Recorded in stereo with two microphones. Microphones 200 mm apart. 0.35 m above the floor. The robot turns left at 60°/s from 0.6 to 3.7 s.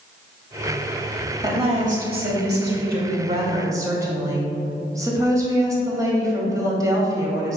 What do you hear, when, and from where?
1.4 s a woman speaking: 25° right, 1.6 m; by 7.6 s 160° right, 1.6 m